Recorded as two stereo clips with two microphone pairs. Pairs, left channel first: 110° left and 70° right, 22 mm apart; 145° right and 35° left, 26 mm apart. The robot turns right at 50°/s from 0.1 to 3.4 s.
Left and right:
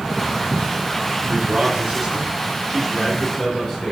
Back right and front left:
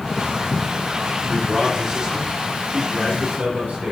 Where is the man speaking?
60° right, 3 m; by 3.9 s 45° left, 3 m.